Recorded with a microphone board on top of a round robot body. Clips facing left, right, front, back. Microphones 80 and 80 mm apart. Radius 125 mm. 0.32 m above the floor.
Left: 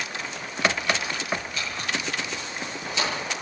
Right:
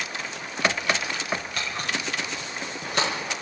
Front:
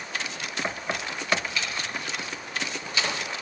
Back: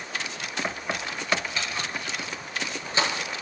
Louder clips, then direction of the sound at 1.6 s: Even, even; 120° right.